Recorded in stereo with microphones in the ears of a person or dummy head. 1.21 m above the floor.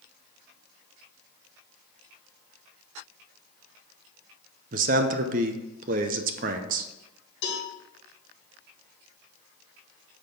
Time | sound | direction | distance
4.7 | a man speaking | 45° right (ahead or behind) | 0.6 m
7.4 | a cowbell | 75° left (ahead or behind) | 3 m